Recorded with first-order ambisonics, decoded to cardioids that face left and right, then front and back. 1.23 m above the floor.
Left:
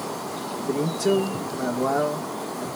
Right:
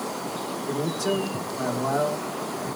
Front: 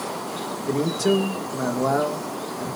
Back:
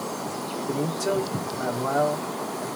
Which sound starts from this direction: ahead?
A man speaking, at 0.7 s.